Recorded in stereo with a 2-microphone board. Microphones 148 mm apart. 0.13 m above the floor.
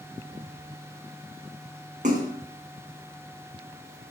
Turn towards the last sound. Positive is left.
turn(degrees=-60)  # may be behind; listen again after turning